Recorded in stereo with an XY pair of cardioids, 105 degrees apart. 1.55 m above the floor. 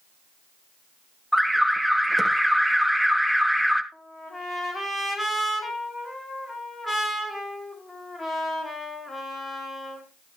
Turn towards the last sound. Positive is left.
turn(degrees=25)